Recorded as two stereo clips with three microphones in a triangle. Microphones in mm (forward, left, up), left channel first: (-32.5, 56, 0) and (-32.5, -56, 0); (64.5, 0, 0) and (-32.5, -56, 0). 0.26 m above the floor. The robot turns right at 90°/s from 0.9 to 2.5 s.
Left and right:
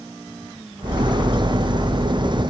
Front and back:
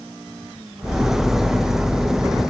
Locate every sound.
Only background noise.